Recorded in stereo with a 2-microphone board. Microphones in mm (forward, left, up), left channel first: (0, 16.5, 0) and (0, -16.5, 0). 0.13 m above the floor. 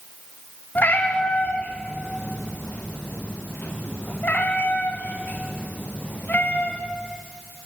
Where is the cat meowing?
60° left (ahead or behind), 3.5 m.